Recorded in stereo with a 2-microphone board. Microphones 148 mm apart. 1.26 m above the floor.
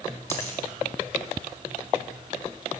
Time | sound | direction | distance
0.3 | a dropped coin | 15° left (ahead or behind) | 4.5 m